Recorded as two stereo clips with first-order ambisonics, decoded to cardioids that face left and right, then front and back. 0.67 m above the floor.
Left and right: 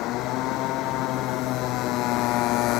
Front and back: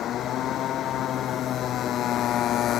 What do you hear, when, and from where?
0.0 s a motorcycle: 55° left